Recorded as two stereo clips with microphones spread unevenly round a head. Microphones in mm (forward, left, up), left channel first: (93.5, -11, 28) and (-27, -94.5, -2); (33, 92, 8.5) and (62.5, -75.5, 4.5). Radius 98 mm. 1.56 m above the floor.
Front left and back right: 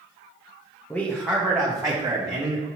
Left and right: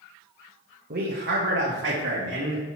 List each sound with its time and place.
0.9 s a man speaking: 45° right, 0.9 m; by 2.7 s 90° right, 1.9 m